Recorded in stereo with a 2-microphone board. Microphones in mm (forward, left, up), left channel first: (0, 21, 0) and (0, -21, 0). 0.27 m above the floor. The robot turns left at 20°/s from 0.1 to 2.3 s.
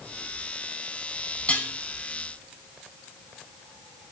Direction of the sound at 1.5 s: 30° left (ahead or behind).